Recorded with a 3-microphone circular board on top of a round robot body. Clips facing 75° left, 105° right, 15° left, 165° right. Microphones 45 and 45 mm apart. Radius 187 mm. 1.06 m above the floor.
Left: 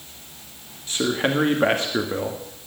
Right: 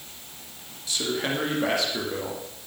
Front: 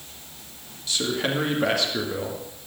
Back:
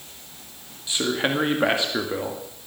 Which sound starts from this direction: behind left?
A man speaking, at 0.9 s.